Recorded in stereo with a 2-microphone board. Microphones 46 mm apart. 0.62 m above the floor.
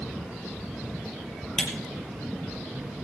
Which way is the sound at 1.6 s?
5° left (ahead or behind).